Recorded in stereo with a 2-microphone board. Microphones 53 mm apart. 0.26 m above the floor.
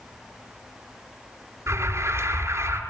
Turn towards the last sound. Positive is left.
turn(degrees=-55)  # may be behind; listen again after turning